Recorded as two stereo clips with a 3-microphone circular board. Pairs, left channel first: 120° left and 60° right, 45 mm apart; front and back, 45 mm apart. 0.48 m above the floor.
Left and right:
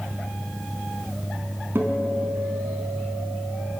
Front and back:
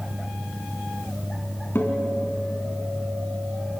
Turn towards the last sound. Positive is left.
turn(degrees=-35)